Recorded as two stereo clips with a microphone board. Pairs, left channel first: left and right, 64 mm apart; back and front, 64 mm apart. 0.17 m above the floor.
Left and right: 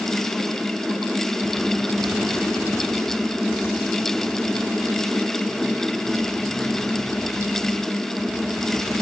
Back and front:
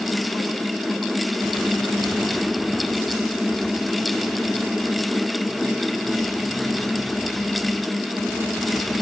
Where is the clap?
I don't hear a clap.